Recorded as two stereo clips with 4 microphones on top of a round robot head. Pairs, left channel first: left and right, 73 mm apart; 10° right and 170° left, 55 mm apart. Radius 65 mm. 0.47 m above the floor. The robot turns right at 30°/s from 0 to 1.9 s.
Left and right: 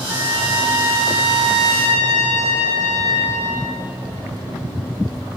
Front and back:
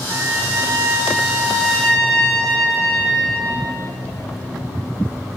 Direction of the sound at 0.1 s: 145° right.